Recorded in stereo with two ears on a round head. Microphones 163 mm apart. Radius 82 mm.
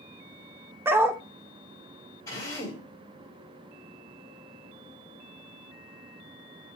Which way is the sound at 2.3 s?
20° left (ahead or behind).